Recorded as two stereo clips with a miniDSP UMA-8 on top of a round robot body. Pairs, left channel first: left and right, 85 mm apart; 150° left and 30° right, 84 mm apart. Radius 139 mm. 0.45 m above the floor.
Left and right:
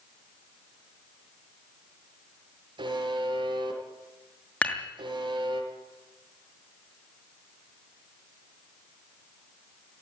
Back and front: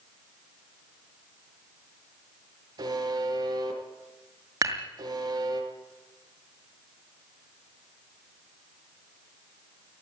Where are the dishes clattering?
20° left, 6 m.